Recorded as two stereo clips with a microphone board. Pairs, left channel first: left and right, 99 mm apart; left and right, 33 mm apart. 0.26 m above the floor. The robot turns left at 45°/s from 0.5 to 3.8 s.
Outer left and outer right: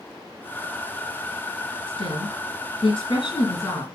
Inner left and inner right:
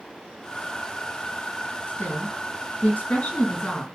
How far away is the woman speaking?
About 4 m.